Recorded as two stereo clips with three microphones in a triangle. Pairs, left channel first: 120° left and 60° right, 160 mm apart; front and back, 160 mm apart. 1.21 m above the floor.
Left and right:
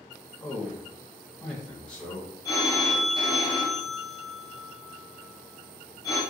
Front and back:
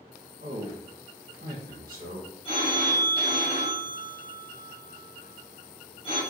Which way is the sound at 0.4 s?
160° right.